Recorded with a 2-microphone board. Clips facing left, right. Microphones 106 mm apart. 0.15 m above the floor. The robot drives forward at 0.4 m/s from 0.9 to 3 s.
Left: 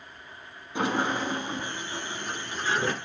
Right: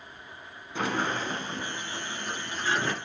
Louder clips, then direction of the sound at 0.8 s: Left 2 dB; 20° left (ahead or behind).